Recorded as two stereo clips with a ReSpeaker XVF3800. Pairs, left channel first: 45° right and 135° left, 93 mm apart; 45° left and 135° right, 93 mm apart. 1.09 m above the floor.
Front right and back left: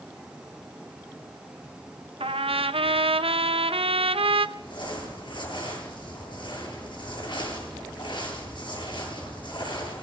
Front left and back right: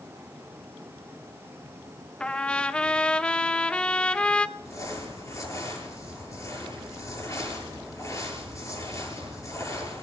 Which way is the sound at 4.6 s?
10° right.